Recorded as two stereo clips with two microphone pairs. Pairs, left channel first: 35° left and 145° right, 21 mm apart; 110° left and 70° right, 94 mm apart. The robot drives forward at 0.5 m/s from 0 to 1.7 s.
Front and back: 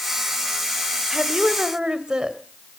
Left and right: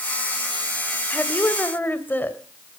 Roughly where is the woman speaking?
Behind.